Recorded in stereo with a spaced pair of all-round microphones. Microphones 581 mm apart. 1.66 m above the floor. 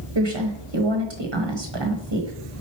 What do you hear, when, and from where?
0.1 s a woman speaking: 50° right (ahead or behind), 1.2 m